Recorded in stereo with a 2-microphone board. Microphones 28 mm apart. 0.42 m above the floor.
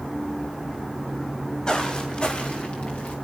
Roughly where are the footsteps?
Left.